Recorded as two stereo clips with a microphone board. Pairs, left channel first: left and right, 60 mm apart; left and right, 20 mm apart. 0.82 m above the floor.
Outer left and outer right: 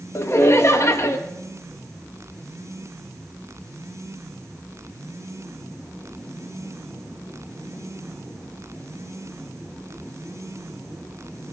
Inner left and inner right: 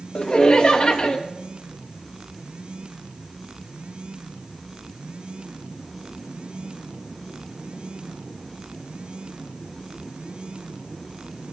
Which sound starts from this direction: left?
Laughter, at 0.1 s.